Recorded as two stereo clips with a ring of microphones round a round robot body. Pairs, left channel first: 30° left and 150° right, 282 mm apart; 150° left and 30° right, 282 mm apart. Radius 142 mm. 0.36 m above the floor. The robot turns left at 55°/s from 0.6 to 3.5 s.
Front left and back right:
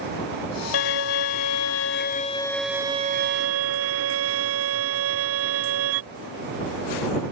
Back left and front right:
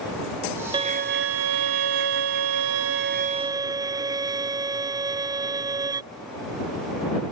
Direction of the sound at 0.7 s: 45° left.